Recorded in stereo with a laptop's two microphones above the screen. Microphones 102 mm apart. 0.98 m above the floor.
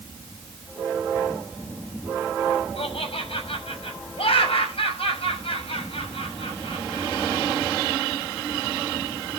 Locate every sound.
2.8 s laughter: 70° left (ahead or behind), 6 m